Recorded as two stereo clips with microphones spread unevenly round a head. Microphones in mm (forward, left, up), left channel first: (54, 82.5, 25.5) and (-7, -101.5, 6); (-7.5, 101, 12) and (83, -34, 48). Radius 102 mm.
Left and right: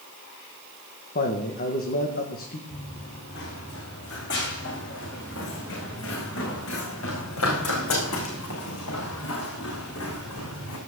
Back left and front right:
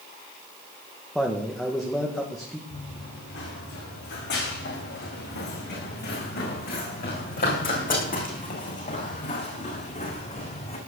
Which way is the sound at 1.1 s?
35° left.